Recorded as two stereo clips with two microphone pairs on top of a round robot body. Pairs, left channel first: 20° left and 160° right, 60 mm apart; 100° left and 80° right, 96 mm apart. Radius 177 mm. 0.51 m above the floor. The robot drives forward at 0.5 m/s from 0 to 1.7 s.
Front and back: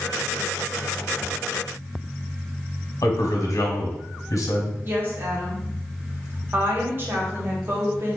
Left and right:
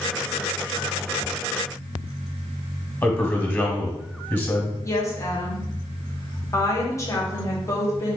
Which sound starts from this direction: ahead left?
A man speaking, at 3.0 s.